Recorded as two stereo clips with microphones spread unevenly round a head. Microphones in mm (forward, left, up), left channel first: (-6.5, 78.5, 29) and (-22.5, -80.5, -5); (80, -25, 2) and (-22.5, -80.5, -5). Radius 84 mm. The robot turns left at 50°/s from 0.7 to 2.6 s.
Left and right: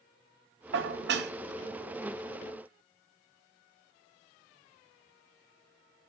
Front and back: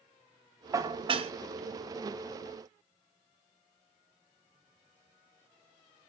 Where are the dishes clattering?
85° right, 0.6 m; by 1.3 s 115° right, 0.6 m.